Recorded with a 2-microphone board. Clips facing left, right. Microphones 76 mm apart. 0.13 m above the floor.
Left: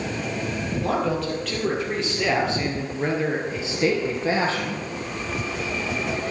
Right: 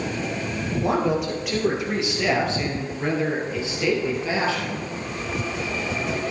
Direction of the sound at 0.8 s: 20° right (ahead or behind).